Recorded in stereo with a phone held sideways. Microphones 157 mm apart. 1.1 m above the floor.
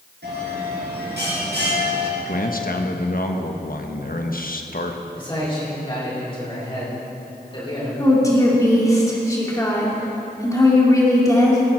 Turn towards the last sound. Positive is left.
turn(degrees=20)  # may be behind; listen again after turning